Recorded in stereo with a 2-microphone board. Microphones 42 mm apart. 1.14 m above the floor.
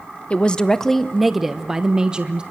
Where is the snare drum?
No snare drum in this recording.